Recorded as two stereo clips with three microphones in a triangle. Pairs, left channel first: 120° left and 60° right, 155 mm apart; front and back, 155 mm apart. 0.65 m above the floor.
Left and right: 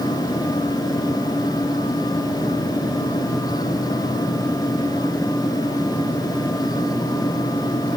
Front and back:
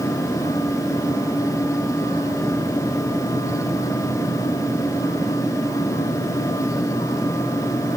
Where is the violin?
I don't hear a violin.